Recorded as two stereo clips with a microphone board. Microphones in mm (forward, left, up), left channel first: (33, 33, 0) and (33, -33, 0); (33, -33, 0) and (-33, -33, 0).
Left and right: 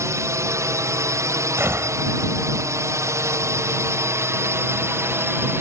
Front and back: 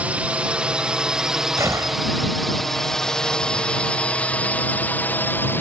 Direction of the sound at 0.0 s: 110° right.